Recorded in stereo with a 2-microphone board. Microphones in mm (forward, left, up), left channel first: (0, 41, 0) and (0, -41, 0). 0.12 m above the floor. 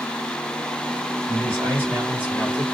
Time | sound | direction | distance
1.3 | a man speaking | 30° right (ahead or behind) | 2 m